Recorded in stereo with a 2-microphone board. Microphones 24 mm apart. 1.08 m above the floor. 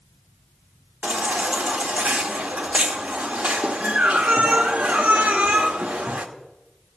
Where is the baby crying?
80° right, 1.6 m.